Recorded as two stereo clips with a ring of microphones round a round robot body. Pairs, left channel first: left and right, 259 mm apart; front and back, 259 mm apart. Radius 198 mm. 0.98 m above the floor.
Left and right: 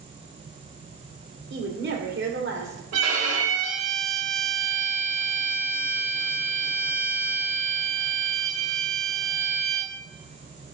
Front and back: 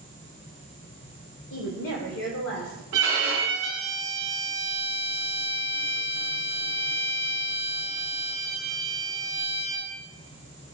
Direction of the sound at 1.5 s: 50° right.